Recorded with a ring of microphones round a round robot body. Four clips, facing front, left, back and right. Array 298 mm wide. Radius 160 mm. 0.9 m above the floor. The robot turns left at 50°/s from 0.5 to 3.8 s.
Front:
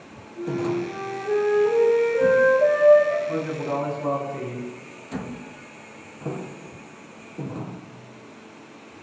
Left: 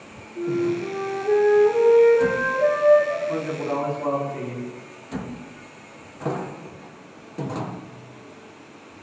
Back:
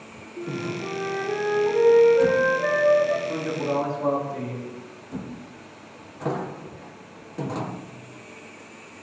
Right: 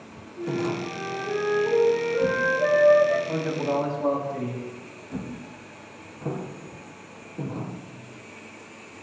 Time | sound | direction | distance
0.4 | a flute | 90° left | 8 m
3.3 | a man speaking | 85° right | 6 m